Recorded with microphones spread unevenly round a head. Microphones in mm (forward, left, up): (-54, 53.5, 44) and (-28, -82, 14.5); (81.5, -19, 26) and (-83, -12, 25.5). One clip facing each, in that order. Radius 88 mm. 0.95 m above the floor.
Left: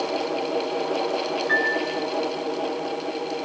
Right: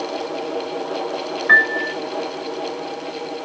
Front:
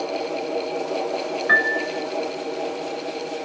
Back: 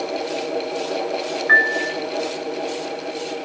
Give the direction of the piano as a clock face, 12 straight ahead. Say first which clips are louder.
Right 2 dB, back 1 dB; 2 o'clock.